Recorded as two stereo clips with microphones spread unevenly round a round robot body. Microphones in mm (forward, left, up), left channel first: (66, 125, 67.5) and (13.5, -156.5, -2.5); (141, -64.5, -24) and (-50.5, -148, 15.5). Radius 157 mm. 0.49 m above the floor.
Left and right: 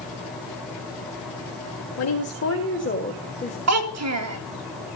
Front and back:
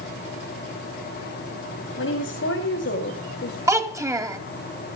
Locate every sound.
2.0 s a woman speaking: 45° left, 2.5 m; by 3.6 s 5° left, 2 m
3.7 s a child speaking: 80° right, 2.5 m